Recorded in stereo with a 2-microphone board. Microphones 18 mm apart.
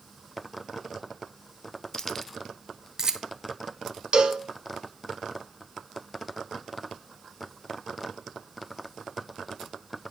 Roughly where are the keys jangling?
Left.